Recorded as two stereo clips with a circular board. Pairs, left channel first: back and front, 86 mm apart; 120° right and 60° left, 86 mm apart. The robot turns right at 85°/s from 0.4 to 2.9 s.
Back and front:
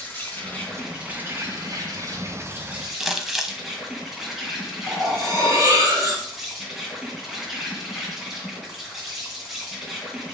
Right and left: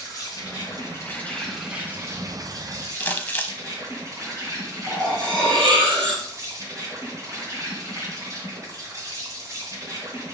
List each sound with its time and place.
0.0 s an insect: 125° right, 2.5 m; by 10.3 s 85° left, 2.5 m
3.0 s crumpling: 80° right, 0.8 m
4.9 s cutlery clinking: 55° left, 3.5 m